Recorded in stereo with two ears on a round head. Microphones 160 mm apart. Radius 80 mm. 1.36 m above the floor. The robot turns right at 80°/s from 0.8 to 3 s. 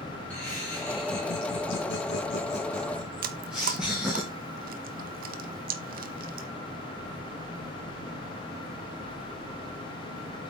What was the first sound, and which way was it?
Laughter, 10° left.